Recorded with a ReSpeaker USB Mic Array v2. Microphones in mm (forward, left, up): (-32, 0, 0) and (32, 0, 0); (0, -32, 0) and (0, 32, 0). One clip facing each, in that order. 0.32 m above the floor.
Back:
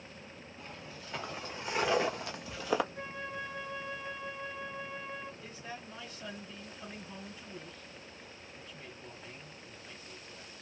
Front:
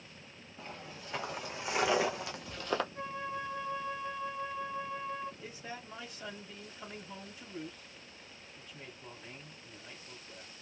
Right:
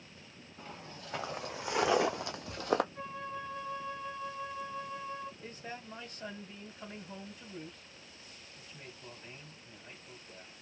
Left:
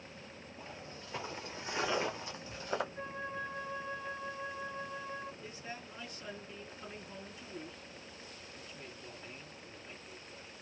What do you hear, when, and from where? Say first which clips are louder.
0.6 s footsteps: front 3 dB, right 2 dB; 75° right, 1.9 m; by 2.8 s 105° right, 0.6 m
2.9 s a flute: front 2 dB, even; 65° right, 2.5 m
5.4 s a man speaking: even, right 1 dB; 65° right, 2.0 m